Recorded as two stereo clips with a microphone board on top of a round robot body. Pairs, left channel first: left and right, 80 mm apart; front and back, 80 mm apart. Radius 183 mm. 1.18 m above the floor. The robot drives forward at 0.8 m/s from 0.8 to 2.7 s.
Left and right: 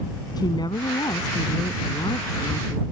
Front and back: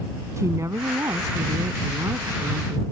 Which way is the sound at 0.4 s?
125° left.